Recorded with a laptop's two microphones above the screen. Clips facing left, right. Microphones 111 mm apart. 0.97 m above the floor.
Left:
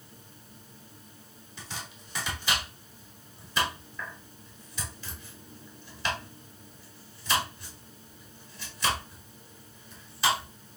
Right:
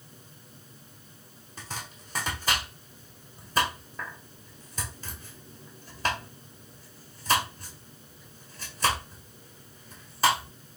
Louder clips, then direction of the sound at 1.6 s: Right 2 dB; 50° right (ahead or behind).